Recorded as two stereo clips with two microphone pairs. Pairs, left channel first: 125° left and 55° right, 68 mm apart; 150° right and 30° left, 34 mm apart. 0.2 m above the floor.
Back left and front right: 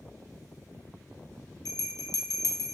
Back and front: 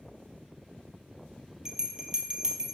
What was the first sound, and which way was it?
A bell, 105° left.